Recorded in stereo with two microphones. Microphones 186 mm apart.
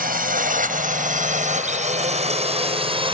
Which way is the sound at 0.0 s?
50° right (ahead or behind).